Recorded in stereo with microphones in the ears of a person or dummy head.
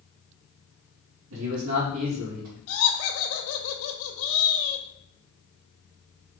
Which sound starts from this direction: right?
A man speaking, at 1.3 s.